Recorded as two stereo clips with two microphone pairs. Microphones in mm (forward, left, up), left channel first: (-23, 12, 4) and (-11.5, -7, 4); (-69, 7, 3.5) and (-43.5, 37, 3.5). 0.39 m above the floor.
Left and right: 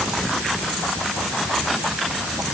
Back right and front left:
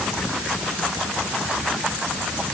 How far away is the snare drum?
No snare drum in this recording.